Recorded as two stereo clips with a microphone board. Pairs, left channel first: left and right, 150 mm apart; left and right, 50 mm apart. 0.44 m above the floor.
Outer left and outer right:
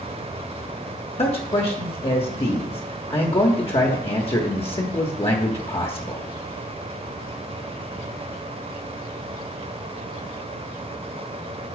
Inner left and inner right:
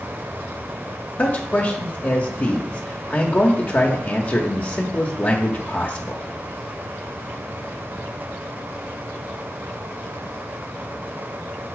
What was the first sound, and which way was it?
A man speaking, 40° left (ahead or behind).